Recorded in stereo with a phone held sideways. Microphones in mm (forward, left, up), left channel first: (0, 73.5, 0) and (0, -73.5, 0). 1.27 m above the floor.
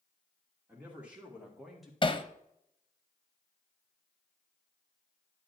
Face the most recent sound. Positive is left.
turn(degrees=35)  # may be behind; listen again after turning